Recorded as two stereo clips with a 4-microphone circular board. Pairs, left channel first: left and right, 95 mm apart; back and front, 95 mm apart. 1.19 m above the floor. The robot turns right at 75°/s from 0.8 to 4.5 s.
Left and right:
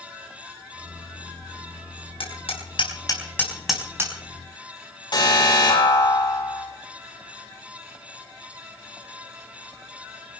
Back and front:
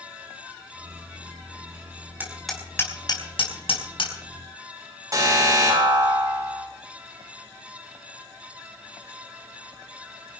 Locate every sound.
2.2 s hammering: 70° left, 4.5 m; by 4.1 s 145° right, 4.5 m
5.1 s an alarm: 55° left, 7.5 m